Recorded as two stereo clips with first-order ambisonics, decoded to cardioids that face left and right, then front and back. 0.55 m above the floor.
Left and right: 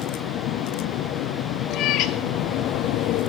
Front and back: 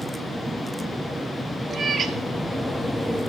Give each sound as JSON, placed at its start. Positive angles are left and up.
{"t": 1.7, "sound": "a cat meowing", "azimuth_deg": 115, "distance_m": 0.7}